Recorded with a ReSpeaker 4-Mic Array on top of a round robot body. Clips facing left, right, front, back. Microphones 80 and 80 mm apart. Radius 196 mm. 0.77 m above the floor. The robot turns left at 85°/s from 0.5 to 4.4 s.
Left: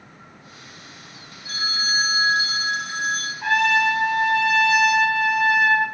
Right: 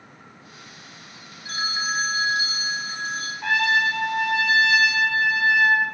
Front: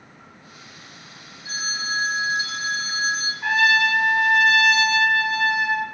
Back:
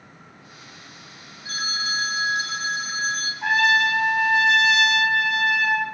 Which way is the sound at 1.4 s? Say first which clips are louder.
Even, even; 135° right.